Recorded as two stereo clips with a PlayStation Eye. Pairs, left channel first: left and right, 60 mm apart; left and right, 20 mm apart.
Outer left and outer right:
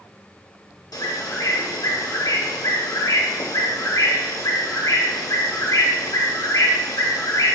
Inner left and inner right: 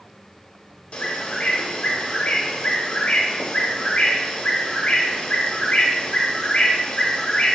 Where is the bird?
80° left, 0.5 m.